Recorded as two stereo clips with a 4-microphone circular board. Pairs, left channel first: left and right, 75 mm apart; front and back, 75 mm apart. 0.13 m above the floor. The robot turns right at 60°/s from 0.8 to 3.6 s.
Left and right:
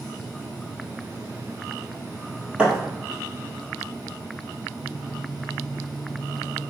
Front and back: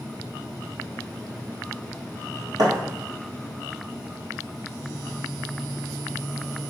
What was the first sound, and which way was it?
A thud, 165° right.